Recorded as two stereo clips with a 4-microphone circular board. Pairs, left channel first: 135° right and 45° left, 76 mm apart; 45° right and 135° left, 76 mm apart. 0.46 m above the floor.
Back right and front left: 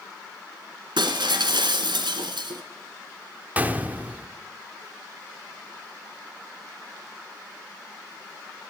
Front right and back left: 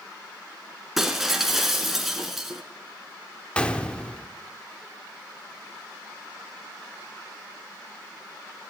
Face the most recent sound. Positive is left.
turn(degrees=15)